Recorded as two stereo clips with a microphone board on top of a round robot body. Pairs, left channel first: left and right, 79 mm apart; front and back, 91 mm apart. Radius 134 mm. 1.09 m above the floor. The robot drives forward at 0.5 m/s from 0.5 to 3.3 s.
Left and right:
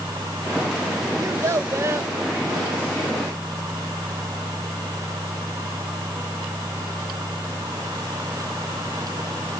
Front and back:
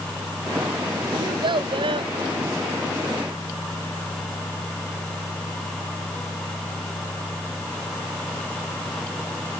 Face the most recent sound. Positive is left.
turn(degrees=-155)